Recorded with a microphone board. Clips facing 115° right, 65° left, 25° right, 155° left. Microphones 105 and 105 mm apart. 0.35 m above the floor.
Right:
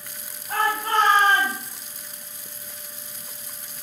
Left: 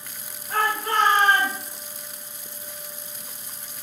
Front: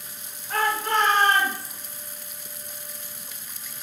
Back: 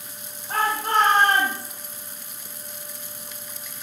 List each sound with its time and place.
0.5 s a shout: 150° right, 3 m; by 1.7 s 170° right, 4.5 m